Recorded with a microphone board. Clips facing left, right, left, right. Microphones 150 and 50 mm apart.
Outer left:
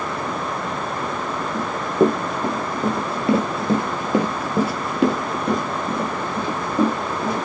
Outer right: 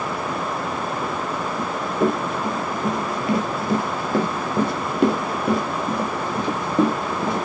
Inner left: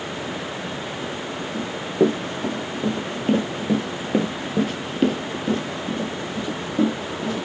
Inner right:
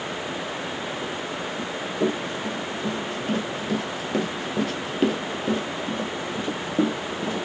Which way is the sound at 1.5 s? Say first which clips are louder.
Outer left 6 dB, inner left 8 dB; 40° left (ahead or behind).